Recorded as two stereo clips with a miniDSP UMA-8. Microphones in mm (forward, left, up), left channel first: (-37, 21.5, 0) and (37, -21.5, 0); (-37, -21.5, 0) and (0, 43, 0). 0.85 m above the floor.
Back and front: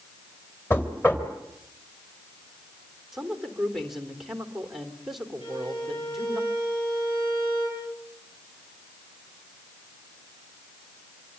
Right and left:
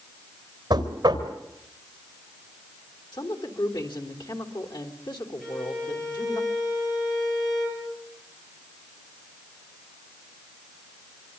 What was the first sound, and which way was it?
Knocking, 85° left.